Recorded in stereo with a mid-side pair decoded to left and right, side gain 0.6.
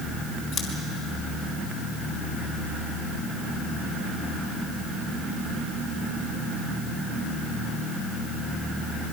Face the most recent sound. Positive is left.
turn(degrees=60)